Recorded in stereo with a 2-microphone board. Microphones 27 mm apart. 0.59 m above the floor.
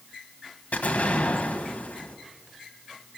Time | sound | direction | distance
0.7 | an explosion | 85° left | 1.4 m